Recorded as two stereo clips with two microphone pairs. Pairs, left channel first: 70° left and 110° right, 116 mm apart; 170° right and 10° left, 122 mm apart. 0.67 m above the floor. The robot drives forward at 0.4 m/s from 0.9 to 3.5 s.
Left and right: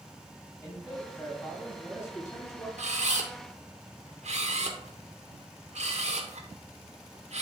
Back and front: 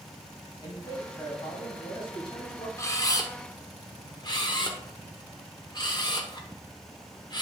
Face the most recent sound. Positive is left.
turn(degrees=-120)